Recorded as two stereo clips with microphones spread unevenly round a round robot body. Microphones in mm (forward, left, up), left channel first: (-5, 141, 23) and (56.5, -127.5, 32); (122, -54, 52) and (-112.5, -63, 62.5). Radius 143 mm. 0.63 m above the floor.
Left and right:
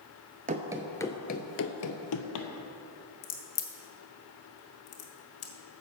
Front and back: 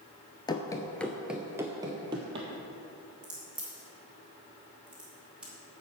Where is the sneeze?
No sneeze in this recording.